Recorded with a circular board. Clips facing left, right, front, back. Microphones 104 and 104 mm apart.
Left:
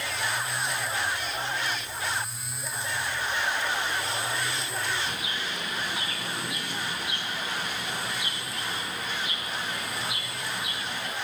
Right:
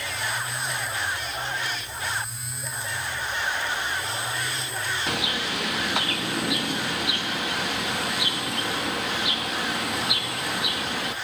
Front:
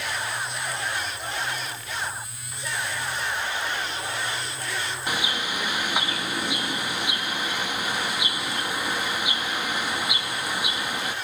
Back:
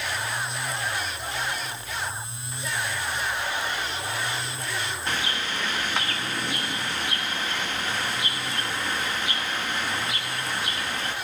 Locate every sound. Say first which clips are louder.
5.1 s a bird: right 5 dB, front 2 dB; 75° right, 1.2 m